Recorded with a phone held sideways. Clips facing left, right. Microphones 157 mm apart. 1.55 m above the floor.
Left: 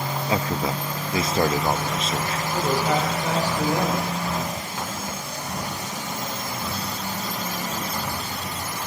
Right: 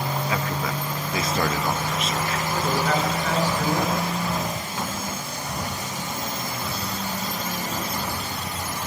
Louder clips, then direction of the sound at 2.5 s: Left 2 dB; 20° left (ahead or behind).